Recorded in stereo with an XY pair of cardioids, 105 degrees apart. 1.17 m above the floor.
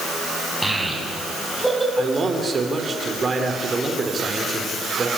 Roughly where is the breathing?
No breathing in this recording.